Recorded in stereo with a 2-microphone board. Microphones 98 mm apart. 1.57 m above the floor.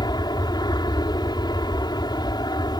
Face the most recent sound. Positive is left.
turn(degrees=50)  # may be behind; listen again after turning